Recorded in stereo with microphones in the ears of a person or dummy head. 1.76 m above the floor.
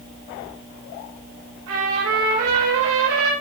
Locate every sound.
1.7 s a trumpet: 80° right, 9.5 m